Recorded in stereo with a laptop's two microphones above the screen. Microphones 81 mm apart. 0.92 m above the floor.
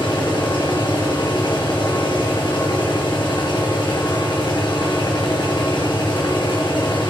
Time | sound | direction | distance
0.0 | a machine running | 75° left (ahead or behind) | 1.6 m